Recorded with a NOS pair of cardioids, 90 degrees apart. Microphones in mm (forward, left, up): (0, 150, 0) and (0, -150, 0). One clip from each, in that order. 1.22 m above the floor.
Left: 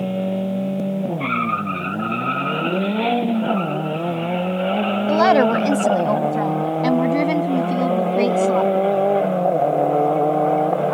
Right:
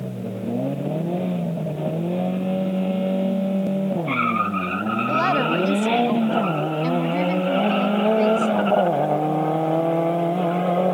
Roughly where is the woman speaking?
Ahead left.